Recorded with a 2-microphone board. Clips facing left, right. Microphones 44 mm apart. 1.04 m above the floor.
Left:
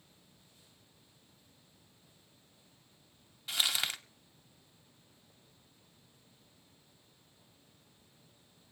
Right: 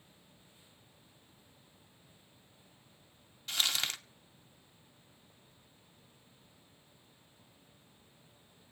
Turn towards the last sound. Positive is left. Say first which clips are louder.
# left 1 dB
turn(degrees=15)  # may be behind; listen again after turning